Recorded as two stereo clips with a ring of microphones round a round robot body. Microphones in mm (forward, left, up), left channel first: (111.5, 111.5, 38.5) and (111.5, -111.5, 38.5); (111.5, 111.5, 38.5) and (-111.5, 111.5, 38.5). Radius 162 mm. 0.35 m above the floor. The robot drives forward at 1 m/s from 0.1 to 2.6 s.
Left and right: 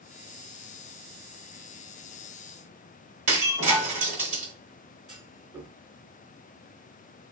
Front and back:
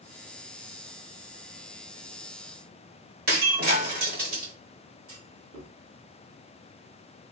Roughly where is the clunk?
Behind.